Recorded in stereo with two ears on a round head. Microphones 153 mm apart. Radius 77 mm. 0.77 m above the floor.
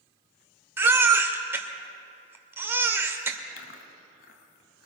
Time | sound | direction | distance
0.8 | a baby crying | 15° right (ahead or behind) | 1.5 m
3.6 | chewing | 80° left | 2 m